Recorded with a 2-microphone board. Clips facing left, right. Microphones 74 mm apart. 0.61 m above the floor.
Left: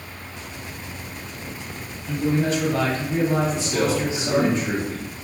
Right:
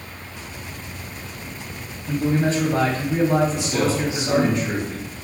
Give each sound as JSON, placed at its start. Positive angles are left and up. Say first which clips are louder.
{"t": 2.1, "sound": "a man speaking", "louder": "right 1 dB", "side_deg": -30, "distance_m": 0.7}
{"t": 3.5, "sound": "a man speaking", "louder": "even", "side_deg": 30, "distance_m": 1.3}